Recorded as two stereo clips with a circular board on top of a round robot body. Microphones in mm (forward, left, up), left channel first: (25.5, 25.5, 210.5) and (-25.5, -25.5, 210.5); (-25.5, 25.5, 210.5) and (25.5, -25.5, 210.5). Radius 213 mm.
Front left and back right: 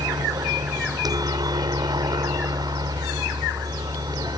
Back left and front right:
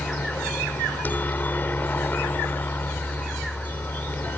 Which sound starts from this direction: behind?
A helicopter, at 0.0 s.